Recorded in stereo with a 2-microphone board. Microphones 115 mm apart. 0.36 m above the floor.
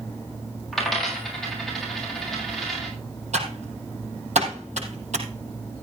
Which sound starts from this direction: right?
Typing on a keyboard, at 3.3 s.